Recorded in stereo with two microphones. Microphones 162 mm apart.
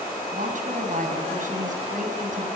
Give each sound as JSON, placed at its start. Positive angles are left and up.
{"t": 0.3, "sound": "a woman speaking", "side_deg": -60, "distance_m": 4.5}